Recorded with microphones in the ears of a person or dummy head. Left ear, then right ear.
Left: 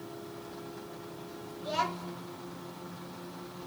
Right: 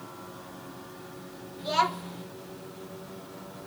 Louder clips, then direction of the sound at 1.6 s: Right 6 dB; 25° right (ahead or behind).